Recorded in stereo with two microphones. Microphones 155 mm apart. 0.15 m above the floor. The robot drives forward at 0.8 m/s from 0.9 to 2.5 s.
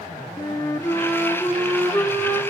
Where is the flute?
20° left (ahead or behind), 0.7 m; by 2.4 s 10° left (ahead or behind), 1.8 m.